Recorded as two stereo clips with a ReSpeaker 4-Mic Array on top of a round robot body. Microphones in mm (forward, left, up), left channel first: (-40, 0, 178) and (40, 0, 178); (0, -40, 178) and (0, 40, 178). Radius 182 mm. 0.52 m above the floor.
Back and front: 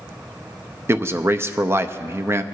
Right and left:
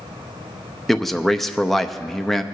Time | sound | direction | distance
0.9 | a man speaking | 5° right | 0.7 m